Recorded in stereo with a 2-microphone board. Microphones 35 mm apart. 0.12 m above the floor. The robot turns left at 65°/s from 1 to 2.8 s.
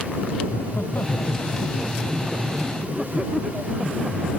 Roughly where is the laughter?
Left.